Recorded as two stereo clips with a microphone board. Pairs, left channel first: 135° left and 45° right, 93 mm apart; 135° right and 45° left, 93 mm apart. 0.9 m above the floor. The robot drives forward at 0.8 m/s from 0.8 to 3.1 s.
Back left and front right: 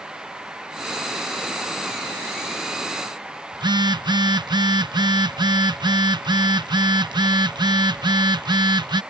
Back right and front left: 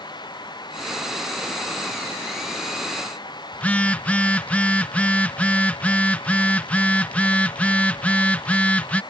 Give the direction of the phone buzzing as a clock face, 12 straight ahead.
2 o'clock.